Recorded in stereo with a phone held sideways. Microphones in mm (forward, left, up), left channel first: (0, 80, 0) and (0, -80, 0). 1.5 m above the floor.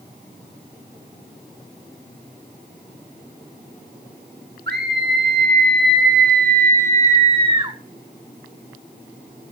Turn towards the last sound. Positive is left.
turn(degrees=-25)  # may be behind; listen again after turning